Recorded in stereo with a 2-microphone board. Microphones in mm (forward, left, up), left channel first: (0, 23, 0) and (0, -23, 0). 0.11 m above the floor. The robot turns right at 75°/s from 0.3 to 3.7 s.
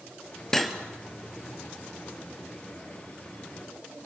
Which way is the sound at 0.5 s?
10° left (ahead or behind).